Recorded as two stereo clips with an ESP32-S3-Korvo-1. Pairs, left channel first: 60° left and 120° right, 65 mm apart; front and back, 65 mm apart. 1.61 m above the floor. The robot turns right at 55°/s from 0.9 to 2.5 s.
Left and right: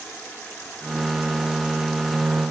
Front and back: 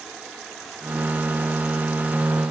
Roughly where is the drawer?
No drawer in this recording.